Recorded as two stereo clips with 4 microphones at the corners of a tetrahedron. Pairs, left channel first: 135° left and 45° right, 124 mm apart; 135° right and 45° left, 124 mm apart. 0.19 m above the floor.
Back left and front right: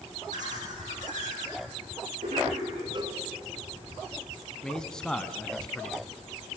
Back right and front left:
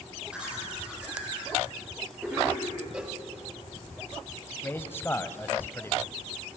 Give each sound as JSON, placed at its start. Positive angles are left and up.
{"t": 0.3, "sound": "laughter", "azimuth_deg": -35, "distance_m": 9.5}
{"t": 2.9, "sound": "a cowbell", "azimuth_deg": -35, "distance_m": 1.1}
{"t": 4.6, "sound": "a man speaking", "azimuth_deg": -155, "distance_m": 1.0}